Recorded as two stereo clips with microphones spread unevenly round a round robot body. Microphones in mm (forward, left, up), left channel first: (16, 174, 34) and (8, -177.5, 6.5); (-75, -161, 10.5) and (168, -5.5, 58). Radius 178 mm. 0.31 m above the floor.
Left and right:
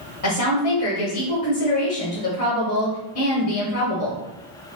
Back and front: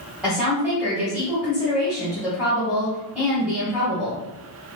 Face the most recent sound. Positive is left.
turn(degrees=125)